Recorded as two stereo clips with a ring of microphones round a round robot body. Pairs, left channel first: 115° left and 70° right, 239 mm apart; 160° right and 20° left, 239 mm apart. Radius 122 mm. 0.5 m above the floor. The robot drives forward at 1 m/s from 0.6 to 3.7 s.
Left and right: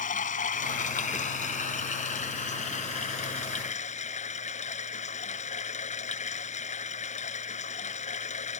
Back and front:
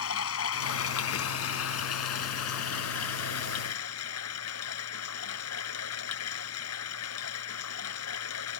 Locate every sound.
0.0 s running water: 170° left; by 8.6 s 175° left